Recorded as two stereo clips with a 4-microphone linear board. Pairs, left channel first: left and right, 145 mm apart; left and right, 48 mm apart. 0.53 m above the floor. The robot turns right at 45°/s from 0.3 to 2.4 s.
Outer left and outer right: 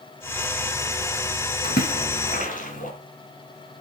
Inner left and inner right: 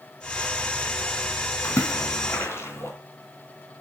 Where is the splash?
80° left, 3.5 m; by 2.9 s 65° left (ahead or behind), 3.5 m.